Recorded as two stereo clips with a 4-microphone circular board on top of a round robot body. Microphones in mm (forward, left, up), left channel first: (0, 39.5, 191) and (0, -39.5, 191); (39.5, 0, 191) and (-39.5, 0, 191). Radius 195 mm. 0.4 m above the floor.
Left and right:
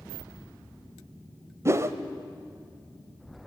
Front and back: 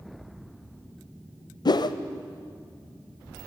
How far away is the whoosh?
About 0.7 m.